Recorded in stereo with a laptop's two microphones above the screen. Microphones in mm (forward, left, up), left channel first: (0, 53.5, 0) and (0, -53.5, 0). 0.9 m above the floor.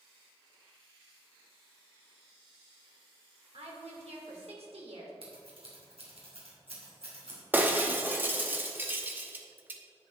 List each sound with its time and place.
3.5 s a woman speaking: 75° right (ahead or behind), 2.5 m
5.2 s scissors: 70° right (ahead or behind), 2.5 m
7.5 s breaking glass: 20° right (ahead or behind), 0.7 m